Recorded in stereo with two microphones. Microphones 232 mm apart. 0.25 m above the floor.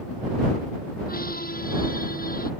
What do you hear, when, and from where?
1.1 s a squeak: 40° left (ahead or behind)